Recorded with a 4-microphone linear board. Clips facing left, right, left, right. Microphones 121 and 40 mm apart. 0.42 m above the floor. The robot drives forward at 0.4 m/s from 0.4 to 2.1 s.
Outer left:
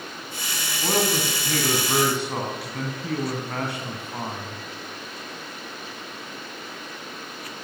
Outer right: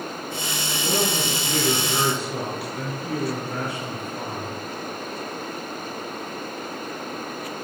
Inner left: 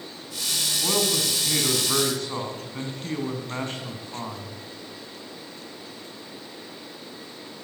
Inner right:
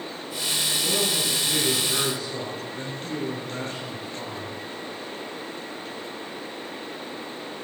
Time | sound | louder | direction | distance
0.8 | a man speaking | outer left 2 dB, inner left 3 dB | 65° left (ahead or behind) | 4.5 m